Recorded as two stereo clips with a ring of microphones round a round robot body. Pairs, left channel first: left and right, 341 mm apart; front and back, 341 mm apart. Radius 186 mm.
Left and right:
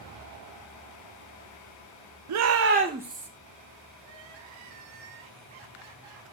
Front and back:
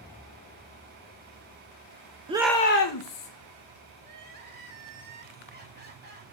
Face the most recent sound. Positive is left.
turn(degrees=-115)